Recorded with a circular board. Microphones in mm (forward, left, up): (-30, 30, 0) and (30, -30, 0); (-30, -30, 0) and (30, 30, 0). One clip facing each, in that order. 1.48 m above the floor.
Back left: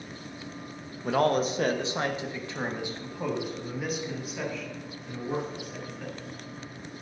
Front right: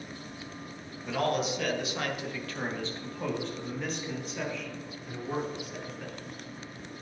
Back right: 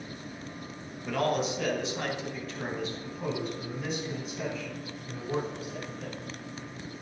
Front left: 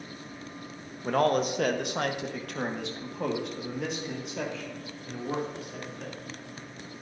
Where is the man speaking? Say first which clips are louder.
Back left 5 dB, front left 4 dB; 95° left, 1.2 m; by 6.2 s 40° left, 3.5 m.